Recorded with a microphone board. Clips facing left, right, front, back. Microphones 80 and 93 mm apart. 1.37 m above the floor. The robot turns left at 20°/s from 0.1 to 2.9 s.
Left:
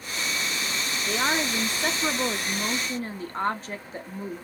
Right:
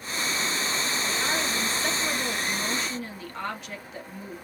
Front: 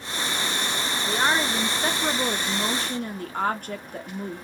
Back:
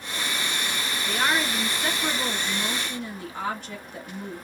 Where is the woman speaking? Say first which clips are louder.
Left 6 dB, front 2 dB; 75° left, 0.7 m; by 4.4 s 35° left, 0.7 m.